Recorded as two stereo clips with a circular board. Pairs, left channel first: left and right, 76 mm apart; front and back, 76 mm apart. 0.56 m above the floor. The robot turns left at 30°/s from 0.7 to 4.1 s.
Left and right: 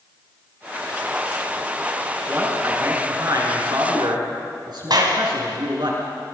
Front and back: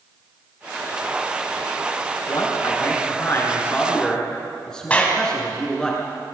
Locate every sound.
2.3 s a man speaking: 25° right, 7 m; by 5.9 s 80° right, 7 m
4.9 s a clap: 70° right, 3 m